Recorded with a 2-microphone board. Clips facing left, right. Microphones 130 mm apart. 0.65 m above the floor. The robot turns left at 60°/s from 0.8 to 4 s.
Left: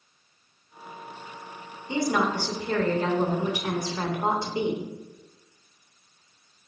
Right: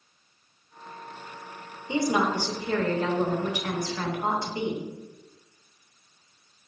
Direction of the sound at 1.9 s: 20° right (ahead or behind).